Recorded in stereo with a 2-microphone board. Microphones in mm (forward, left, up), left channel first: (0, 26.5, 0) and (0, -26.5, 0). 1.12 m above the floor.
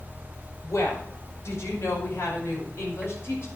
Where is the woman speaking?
70° left (ahead or behind), 5 m; by 3.5 s 60° left (ahead or behind), 6 m.